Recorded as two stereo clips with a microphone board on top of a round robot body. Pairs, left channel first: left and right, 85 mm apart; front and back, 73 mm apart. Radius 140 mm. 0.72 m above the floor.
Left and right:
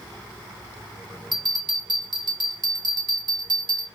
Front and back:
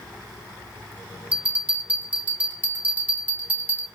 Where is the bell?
115° right, 1.7 m.